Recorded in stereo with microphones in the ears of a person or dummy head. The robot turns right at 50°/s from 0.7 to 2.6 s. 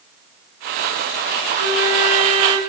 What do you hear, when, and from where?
1.6 s a flute: 75° right, 1.9 m; by 2.6 s 25° right, 1.9 m